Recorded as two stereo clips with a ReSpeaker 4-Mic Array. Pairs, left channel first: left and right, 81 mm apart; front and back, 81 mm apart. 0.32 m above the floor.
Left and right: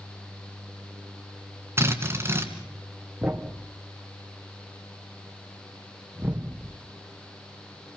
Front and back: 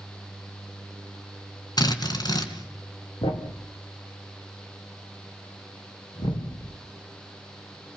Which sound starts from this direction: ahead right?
A drill, at 1.8 s.